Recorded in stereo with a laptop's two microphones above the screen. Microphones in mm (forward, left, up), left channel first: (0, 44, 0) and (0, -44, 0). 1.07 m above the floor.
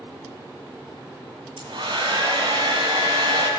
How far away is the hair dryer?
About 2 m.